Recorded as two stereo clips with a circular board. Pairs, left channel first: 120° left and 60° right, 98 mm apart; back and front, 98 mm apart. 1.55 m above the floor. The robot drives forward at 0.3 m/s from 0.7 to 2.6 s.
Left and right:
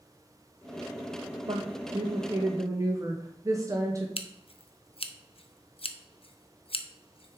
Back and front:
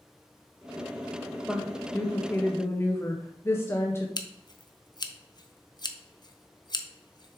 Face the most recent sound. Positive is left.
turn(degrees=135)